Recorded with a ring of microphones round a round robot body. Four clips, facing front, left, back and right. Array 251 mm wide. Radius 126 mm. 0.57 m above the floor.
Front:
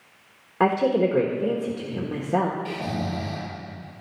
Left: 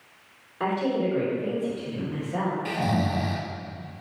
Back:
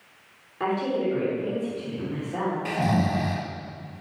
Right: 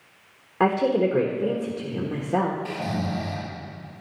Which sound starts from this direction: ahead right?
A woman speaking, at 0.6 s.